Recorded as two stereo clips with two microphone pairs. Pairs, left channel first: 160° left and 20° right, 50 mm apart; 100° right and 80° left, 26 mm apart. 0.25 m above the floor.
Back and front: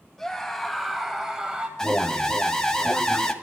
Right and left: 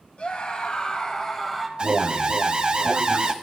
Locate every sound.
0.2 s a scream: 125° right, 1.7 m; by 1.7 s 20° right, 1.2 m
1.8 s an alarm: 90° left, 0.8 m